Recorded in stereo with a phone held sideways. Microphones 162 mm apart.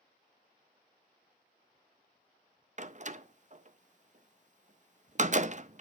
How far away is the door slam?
About 0.5 m.